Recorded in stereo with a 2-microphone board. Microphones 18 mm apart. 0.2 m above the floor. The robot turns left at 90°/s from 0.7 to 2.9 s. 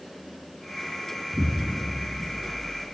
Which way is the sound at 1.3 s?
170° right.